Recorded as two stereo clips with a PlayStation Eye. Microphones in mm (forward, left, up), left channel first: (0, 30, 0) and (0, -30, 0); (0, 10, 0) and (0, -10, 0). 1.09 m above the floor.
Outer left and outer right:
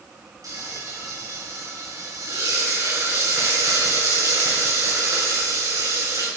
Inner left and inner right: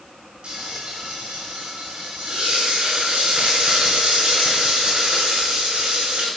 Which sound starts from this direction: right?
Frying, at 0.4 s.